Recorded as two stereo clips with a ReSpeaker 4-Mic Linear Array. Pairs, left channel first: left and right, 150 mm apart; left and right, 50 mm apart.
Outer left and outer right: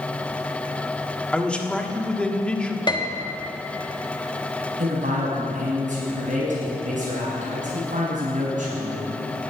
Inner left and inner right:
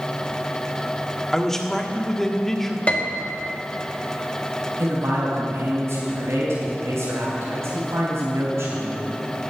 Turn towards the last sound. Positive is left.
turn(degrees=-60)  # may be behind; listen again after turning